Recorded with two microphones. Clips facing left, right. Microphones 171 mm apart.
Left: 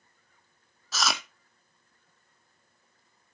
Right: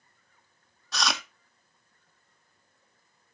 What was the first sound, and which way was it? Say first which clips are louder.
Chewing: even; centre (ahead or behind).